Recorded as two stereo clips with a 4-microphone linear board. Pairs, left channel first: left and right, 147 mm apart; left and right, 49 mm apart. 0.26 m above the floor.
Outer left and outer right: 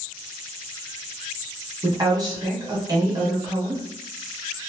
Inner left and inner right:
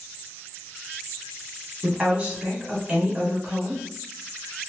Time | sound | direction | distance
1.8 | a woman speaking | 25° right (ahead or behind) | 1.5 m